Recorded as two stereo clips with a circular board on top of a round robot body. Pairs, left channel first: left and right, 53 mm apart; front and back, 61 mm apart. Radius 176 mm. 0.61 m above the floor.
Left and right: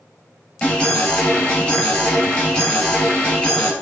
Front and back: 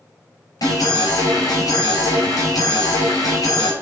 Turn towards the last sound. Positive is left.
turn(degrees=20)